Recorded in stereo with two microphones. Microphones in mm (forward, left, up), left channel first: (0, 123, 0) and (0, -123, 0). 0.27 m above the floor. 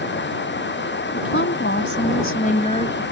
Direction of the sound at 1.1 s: 55° left (ahead or behind).